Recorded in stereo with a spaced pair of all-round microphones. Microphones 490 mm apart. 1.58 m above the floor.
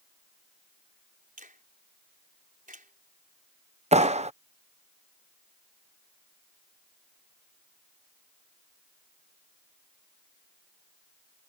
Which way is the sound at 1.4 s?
15° right (ahead or behind).